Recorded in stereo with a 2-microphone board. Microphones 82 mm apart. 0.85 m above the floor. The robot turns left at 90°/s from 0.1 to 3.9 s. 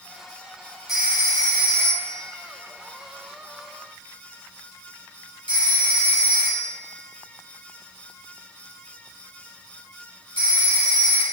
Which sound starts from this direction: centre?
A phone ringing, at 0.9 s.